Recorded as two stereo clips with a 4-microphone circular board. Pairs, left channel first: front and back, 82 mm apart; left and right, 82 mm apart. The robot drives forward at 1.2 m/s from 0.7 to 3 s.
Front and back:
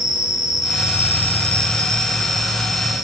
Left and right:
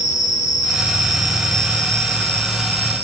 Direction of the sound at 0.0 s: 100° right.